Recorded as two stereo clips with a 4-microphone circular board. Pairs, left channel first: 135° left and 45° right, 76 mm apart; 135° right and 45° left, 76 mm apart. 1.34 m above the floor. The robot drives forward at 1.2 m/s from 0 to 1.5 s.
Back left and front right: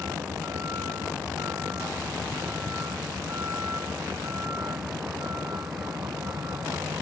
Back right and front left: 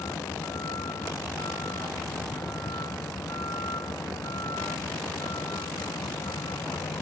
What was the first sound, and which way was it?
A vehicle, 95° right.